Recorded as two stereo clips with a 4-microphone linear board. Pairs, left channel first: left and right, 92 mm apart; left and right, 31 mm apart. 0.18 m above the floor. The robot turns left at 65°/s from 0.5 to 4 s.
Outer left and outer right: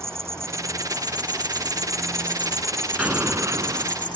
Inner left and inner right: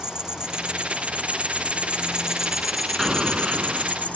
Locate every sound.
0.0 s an insect: 35° right; by 4.2 s 95° left
3.0 s an explosion: 15° right; by 4.0 s 75° right